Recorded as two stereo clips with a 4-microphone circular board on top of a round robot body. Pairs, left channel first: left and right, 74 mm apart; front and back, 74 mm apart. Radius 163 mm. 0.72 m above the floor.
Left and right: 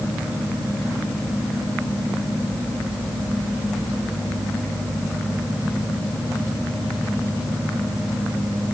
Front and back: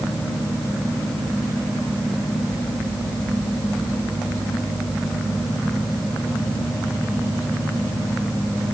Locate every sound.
Only background noise.